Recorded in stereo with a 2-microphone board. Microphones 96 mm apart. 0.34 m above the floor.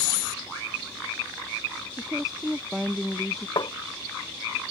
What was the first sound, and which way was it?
A woman speaking, 5° right (ahead or behind).